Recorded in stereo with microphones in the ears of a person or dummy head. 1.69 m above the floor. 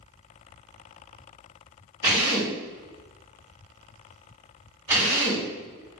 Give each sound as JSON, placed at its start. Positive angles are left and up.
{"t": 2.0, "sound": "a drill", "side_deg": -15, "distance_m": 1.7}